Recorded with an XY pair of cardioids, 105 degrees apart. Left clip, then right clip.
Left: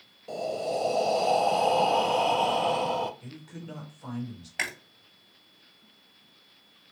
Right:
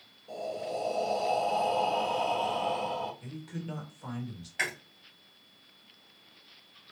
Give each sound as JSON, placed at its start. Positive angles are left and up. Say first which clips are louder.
{"t": 0.3, "sound": "breathing", "louder": "left 5 dB", "azimuth_deg": 60, "distance_m": 0.5}
{"t": 3.2, "sound": "a man speaking", "louder": "right 2 dB", "azimuth_deg": -10, "distance_m": 1.7}
{"t": 4.6, "sound": "chewing", "louder": "even", "azimuth_deg": 30, "distance_m": 2.0}